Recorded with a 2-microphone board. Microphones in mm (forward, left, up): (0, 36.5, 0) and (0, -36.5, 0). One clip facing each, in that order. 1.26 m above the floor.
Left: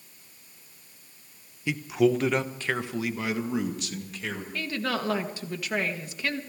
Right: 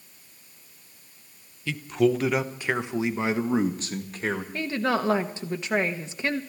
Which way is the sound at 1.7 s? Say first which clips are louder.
Even; 20° left (ahead or behind).